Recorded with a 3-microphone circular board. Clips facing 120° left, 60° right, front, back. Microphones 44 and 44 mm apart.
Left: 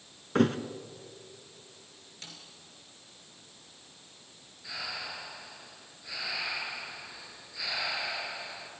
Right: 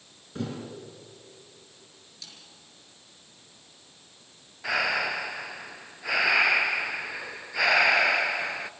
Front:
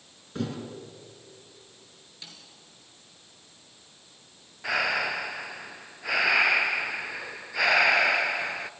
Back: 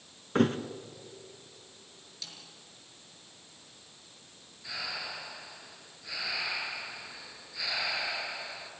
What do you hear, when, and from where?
0.3 s a thud: 145° left, 1.2 m
2.2 s a snare drum: 65° left, 4.5 m
4.6 s breathing: 30° right, 0.7 m